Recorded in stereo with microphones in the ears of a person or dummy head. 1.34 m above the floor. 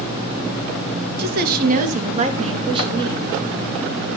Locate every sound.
1.2 s a woman speaking: 55° right (ahead or behind), 2.0 m; by 3.2 s 20° right (ahead or behind), 3 m